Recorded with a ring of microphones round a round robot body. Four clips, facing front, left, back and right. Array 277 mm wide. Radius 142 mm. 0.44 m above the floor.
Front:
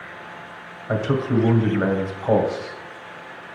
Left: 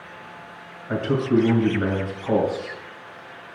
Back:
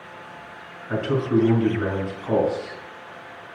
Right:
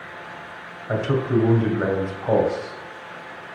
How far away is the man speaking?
About 2.5 m.